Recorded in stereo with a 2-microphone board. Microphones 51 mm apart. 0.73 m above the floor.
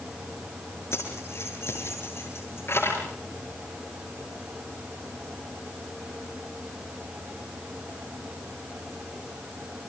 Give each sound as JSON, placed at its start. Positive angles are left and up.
{"t": 0.9, "sound": "keys jangling", "side_deg": 60, "distance_m": 8.0}